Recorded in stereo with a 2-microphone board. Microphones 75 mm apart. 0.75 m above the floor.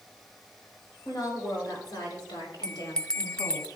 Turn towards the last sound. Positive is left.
turn(degrees=15)  # may be behind; listen again after turning